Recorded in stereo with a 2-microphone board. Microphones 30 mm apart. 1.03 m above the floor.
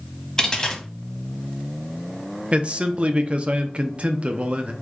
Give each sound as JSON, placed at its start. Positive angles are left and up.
{"t": 0.4, "sound": "a dropped coin", "side_deg": 25, "distance_m": 0.9}
{"t": 2.5, "sound": "a man speaking", "side_deg": -40, "distance_m": 0.5}